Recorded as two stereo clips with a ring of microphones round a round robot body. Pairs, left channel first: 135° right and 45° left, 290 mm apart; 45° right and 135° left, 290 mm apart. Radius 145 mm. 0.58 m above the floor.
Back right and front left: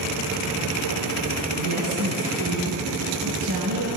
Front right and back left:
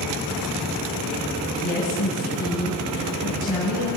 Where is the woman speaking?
15° left, 7 m.